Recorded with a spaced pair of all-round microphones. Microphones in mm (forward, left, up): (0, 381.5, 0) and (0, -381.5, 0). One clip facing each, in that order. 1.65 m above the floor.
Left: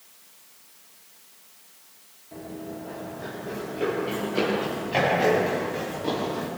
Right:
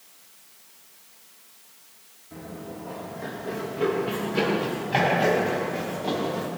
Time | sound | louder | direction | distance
2.3 | running footsteps | left 2 dB | 40° right (ahead or behind) | 8 m